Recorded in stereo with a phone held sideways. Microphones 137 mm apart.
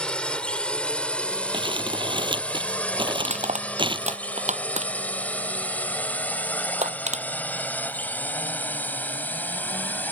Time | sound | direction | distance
0.0 | a drone | 5° left (ahead or behind) | ?
1.5 | crumpling | 40° right (ahead or behind) | ?
3.2 | crushing | 65° right (ahead or behind) | ?